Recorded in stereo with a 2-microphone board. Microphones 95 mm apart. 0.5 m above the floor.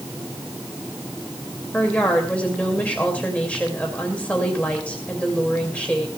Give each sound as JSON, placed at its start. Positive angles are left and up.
{"t": 1.7, "sound": "a woman speaking", "side_deg": 15, "distance_m": 2.5}